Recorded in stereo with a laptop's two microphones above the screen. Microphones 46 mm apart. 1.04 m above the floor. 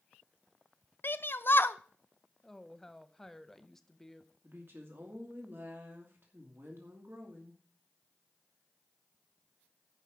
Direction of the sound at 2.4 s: 10° left (ahead or behind).